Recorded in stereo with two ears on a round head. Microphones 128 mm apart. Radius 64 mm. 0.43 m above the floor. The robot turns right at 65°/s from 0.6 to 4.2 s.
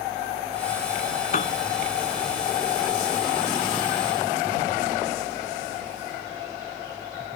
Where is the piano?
55° left (ahead or behind); by 1.6 s 40° left (ahead or behind).